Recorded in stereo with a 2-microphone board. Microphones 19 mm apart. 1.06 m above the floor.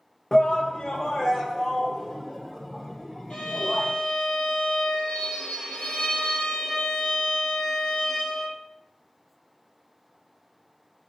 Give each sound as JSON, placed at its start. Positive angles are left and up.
{"t": 0.3, "sound": "a shout", "side_deg": 30, "distance_m": 0.6}
{"t": 3.3, "sound": "a violin", "side_deg": 80, "distance_m": 4.5}